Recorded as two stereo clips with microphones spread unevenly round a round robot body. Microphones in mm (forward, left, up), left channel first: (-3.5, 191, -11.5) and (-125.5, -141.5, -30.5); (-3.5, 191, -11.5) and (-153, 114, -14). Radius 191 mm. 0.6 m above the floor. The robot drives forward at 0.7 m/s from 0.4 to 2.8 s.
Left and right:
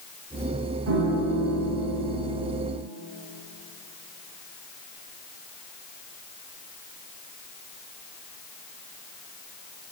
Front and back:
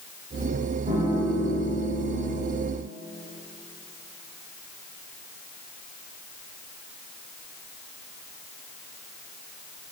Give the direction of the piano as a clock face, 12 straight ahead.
4 o'clock.